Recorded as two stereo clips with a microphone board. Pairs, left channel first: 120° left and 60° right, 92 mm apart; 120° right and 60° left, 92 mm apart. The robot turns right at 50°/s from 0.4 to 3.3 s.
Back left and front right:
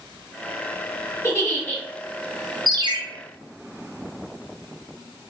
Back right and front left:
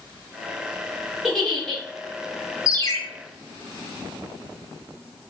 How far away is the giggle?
About 1.0 m.